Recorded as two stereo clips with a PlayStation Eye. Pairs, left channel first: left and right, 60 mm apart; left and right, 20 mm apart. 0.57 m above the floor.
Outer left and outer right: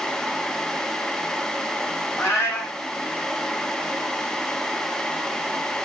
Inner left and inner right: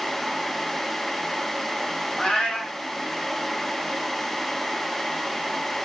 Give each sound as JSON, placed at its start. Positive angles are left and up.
{"t": 2.2, "sound": "a cat meowing", "side_deg": 50, "distance_m": 2.0}